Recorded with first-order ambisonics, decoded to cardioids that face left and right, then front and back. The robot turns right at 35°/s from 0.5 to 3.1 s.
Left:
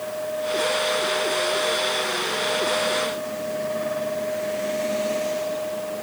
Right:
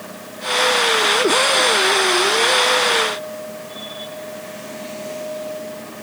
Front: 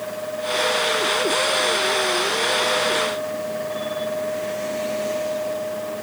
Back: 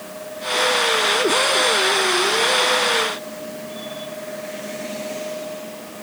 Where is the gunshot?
No gunshot in this recording.